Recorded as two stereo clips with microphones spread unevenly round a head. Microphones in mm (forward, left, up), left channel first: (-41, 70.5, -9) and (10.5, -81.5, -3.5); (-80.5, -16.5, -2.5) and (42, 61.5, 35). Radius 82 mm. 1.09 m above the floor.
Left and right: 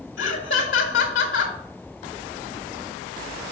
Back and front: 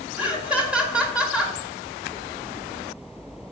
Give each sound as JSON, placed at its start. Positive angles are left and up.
{"t": 0.2, "sound": "laughter", "azimuth_deg": 115, "distance_m": 1.6}